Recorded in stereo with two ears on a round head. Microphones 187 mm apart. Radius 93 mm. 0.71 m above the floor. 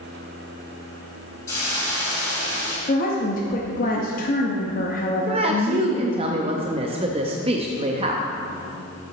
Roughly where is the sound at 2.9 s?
Left.